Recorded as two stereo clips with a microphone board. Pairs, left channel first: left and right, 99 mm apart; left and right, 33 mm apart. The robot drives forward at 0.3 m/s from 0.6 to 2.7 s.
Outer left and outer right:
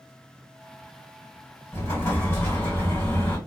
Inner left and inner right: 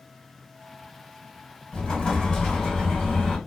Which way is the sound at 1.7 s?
25° left (ahead or behind).